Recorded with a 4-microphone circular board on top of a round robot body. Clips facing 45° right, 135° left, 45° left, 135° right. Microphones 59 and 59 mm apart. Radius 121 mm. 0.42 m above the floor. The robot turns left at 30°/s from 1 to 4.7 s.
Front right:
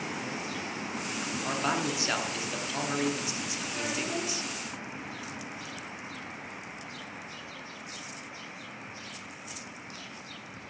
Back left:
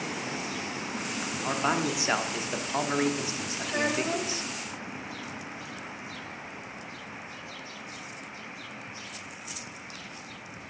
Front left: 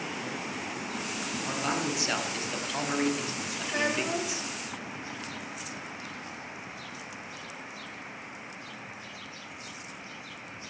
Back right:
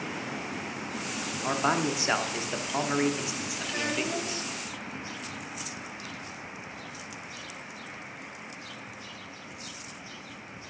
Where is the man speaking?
155° right, 1.2 m; by 4.5 s 115° left, 1.2 m.